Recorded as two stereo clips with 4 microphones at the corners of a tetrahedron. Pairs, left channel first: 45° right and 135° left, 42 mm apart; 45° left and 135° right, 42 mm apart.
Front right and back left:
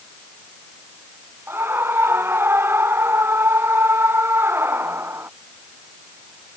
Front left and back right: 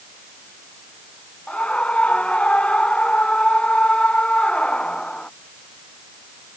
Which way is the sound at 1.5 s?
110° left.